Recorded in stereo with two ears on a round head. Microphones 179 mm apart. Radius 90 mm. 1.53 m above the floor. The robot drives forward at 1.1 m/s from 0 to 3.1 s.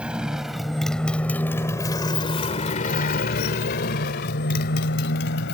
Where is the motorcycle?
5° right (ahead or behind); by 5.5 s 60° left (ahead or behind).